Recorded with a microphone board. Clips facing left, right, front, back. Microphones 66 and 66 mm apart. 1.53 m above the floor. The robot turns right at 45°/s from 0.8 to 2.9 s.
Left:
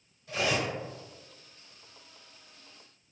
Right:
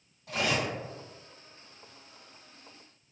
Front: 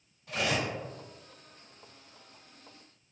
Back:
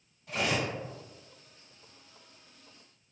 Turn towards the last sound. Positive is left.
turn(degrees=5)